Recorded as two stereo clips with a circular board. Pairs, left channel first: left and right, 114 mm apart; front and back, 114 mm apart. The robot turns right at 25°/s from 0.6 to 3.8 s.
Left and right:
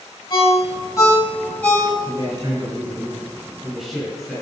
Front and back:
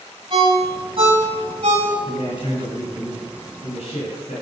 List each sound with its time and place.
0.3 s a ringtone: 140° left, 2.5 m; by 1.9 s 170° left, 2.5 m
2.0 s a man speaking: 45° right, 3 m; by 4.4 s straight ahead, 3 m